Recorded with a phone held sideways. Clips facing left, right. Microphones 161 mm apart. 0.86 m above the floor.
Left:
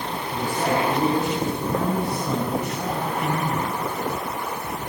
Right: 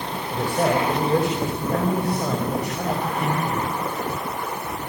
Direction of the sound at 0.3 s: 80° right.